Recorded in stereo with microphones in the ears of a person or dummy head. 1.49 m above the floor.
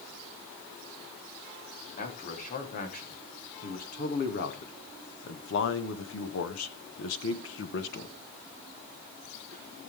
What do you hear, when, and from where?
2.0 s a man speaking: 40° left (ahead or behind), 3.5 m; by 8.2 s 65° left (ahead or behind), 1.2 m